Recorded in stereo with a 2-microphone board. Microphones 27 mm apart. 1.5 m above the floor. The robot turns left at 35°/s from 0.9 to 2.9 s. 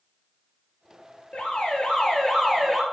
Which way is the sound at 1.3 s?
55° left.